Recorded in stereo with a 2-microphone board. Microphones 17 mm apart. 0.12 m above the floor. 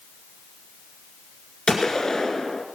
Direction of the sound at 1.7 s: 40° left (ahead or behind).